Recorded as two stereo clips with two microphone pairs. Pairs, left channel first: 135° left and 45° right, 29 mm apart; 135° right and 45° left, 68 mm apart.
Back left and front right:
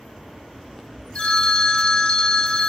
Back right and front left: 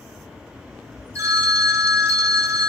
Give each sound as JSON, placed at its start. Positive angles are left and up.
{"t": 1.1, "sound": "a phone ringing", "azimuth_deg": 90, "distance_m": 0.8}